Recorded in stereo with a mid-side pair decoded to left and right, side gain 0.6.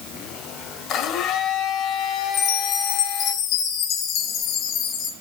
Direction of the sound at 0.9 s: 65° left.